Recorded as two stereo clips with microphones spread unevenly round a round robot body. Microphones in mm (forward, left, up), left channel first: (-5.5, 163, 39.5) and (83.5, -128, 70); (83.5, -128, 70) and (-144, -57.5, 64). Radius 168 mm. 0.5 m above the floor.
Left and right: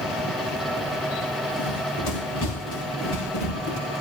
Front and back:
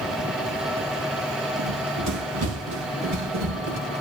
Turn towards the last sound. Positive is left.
turn(degrees=165)